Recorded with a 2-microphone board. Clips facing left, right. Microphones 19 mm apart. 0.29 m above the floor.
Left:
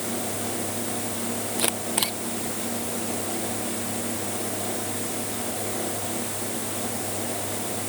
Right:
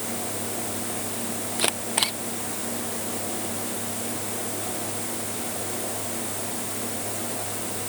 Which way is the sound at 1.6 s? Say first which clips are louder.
Right 3 dB; 15° right (ahead or behind).